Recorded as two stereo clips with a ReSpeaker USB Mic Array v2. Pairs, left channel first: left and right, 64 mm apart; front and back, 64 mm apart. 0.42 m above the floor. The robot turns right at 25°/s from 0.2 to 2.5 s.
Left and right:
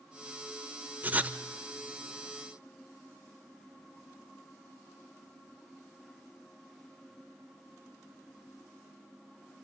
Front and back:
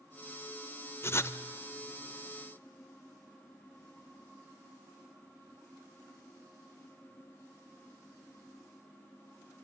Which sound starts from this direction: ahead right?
Writing, at 1.0 s.